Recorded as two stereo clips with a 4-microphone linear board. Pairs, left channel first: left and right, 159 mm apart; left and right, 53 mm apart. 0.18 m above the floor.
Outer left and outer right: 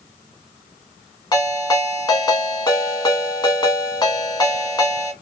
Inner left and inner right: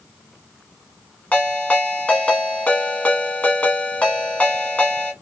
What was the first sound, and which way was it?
A ringtone, 25° left (ahead or behind).